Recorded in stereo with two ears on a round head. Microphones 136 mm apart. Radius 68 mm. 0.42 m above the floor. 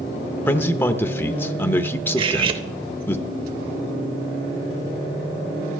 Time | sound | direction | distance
0.5 | a man speaking | 15° left (ahead or behind) | 0.7 m
2.2 | cutlery clinking | 35° right (ahead or behind) | 0.9 m